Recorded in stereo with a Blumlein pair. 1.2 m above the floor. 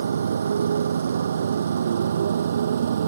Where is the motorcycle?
70° right; by 3.1 s 65° right.